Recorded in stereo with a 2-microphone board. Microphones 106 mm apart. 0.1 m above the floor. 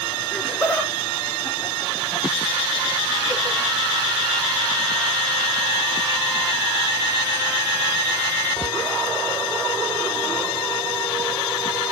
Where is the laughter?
5° left (ahead or behind), 2.0 m; by 3.6 s 20° right (ahead or behind), 1.8 m.